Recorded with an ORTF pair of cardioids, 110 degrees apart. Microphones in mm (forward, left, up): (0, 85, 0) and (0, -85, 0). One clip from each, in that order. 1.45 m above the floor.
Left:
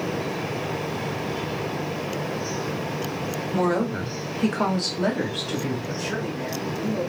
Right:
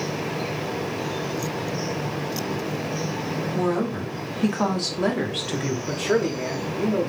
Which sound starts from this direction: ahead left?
A woman speaking, at 3.5 s.